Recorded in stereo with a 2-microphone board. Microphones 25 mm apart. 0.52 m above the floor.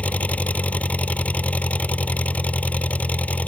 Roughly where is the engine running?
Left.